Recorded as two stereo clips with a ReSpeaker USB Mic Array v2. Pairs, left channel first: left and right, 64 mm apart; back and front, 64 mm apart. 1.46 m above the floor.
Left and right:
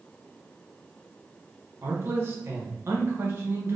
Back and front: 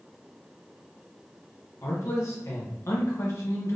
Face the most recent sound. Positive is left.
turn(degrees=-145)